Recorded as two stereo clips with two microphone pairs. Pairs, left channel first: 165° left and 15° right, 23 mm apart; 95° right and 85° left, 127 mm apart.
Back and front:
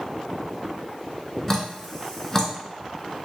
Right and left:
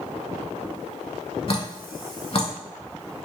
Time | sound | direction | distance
1.5 | dripping | 130° right | 0.7 m